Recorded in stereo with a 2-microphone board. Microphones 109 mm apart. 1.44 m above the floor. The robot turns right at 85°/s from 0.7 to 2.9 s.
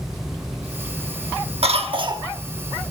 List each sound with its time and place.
1.6 s a cough: 85° right, 1.1 m; by 2.3 s 35° right, 1.1 m